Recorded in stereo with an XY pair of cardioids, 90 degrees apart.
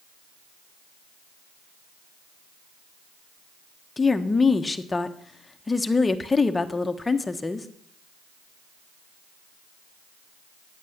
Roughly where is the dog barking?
I don't hear a dog barking.